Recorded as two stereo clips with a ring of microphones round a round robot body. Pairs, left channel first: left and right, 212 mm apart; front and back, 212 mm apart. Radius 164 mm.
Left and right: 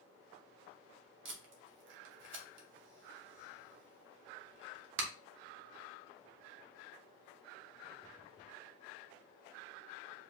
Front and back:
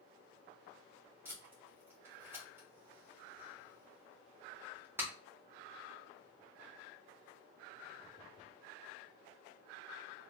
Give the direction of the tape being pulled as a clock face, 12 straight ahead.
3 o'clock.